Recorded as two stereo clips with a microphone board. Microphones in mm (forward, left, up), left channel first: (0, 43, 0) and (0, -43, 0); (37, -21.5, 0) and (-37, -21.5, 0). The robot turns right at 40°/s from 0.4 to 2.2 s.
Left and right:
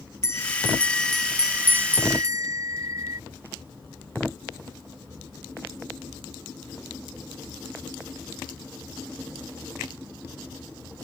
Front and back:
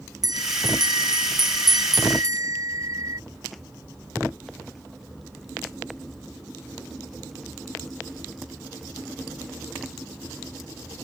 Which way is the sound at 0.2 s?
150° left.